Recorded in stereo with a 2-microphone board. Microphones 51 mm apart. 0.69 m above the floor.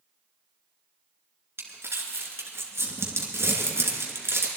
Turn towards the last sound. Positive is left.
turn(degrees=-60)  # may be behind; listen again after turning